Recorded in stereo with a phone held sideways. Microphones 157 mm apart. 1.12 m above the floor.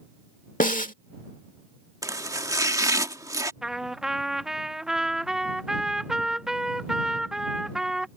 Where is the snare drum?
60° left (ahead or behind).